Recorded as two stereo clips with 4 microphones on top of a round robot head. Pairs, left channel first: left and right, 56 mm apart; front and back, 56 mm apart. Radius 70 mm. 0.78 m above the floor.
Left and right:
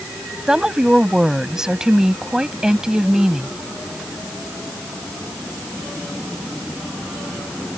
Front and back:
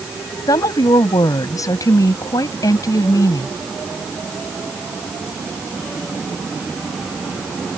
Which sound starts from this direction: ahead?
A woman speaking, at 0.5 s.